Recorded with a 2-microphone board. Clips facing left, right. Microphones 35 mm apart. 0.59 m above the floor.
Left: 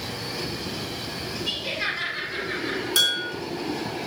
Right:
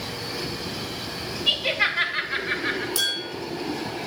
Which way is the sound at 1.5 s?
35° right (ahead or behind).